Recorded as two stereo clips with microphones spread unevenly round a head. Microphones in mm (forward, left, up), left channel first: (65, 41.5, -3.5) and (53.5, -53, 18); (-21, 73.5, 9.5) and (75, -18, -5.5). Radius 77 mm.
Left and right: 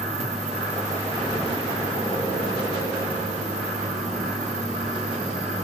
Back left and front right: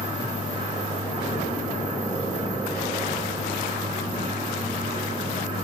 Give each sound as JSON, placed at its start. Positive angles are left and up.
{"t": 0.0, "sound": "a fan", "azimuth_deg": -105, "distance_m": 1.7}